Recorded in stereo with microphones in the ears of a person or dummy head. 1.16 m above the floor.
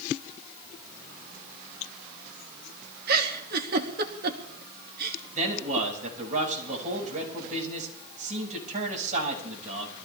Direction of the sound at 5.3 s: 40° right (ahead or behind).